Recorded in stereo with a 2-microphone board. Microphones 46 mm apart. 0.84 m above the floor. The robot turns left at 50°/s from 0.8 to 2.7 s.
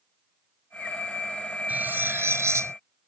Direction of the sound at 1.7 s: 35° right.